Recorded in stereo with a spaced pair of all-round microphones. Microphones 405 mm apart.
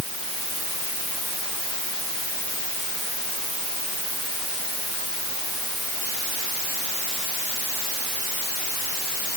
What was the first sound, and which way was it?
Only background noise.